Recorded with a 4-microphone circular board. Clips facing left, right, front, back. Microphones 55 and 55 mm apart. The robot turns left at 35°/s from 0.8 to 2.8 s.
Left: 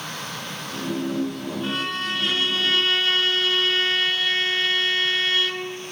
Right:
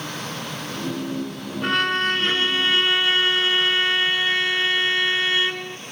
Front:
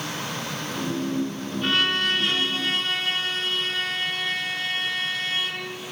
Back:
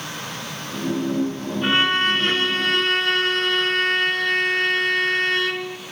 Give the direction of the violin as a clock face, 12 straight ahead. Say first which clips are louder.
Right 8 dB, back 4 dB; 4 o'clock.